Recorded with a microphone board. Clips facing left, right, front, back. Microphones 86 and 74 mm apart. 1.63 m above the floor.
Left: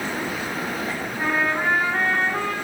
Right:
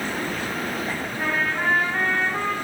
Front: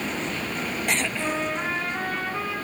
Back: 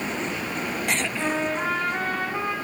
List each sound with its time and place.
1.2 s a trumpet: 170° left, 2.5 m